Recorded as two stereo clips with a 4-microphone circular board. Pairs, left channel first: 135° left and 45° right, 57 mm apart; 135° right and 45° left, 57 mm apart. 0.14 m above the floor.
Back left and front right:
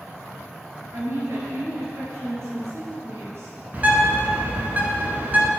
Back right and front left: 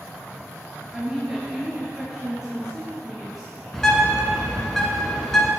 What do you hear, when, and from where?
0.9 s a woman speaking: 35° right, 1.9 m
3.7 s a bird: 60° right, 1.3 m